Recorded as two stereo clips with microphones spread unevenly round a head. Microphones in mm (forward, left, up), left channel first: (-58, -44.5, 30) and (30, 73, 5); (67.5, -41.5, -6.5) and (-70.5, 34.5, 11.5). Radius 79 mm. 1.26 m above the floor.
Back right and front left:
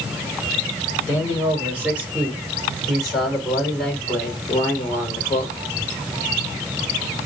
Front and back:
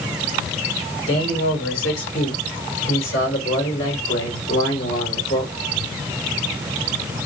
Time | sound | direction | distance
1.1 | a man speaking | 20° right | 4.5 m